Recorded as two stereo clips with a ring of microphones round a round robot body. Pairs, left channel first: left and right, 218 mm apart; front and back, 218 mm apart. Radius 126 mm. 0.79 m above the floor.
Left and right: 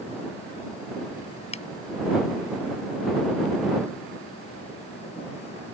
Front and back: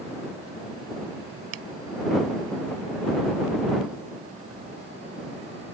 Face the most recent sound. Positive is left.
turn(degrees=150)